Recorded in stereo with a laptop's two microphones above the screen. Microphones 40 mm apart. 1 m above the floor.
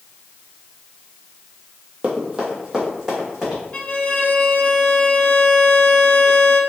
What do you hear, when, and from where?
2.0 s running footsteps: 35° right (ahead or behind), 1.2 m; by 3.6 s 15° right (ahead or behind), 2.5 m
3.7 s a violin: 30° left (ahead or behind), 0.7 m